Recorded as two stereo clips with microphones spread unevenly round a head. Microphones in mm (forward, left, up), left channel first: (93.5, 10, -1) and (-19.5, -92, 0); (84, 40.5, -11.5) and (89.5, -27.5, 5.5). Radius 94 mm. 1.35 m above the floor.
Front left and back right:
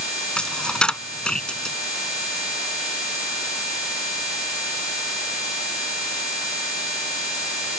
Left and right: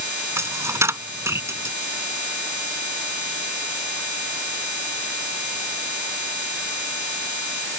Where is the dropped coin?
40° right.